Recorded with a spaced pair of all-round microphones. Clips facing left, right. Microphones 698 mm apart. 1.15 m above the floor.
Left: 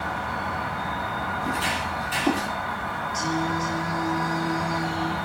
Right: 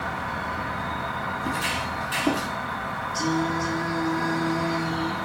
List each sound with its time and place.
0.0 s an insect: 70° left (ahead or behind), 1.0 m
1.4 s footsteps: centre (ahead or behind), 1.8 m; by 2.5 s 15° left (ahead or behind), 1.6 m
3.1 s singing: 15° left (ahead or behind), 0.8 m